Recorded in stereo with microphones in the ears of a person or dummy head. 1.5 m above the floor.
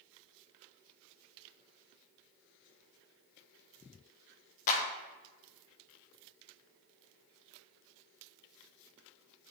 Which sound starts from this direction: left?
A clap, at 4.7 s.